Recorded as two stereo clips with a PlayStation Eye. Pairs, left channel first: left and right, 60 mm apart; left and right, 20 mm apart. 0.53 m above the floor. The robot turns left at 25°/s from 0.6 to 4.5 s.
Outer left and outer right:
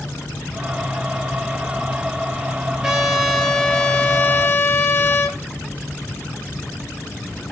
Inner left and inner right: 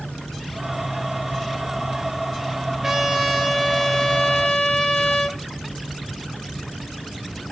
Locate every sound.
2.8 s a trumpet: 170° right, 0.6 m; by 5.4 s 150° left, 0.6 m